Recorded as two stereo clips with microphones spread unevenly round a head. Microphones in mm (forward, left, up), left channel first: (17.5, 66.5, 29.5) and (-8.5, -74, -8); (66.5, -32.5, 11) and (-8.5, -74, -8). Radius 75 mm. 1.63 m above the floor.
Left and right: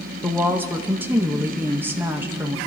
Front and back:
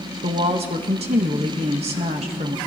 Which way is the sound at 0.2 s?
175° left.